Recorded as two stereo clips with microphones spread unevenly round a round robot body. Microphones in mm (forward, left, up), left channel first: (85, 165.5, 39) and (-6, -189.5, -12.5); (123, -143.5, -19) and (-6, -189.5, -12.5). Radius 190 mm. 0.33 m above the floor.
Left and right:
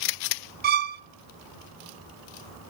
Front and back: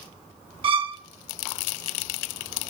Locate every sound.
0.6 s a violin: 135° right, 0.7 m